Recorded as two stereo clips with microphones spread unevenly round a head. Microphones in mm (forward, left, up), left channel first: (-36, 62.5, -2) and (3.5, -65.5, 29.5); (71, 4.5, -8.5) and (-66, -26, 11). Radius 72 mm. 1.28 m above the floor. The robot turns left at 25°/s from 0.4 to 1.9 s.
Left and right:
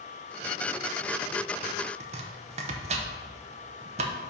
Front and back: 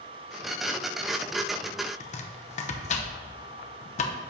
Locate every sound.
2.0 s chopping: 25° right, 0.6 m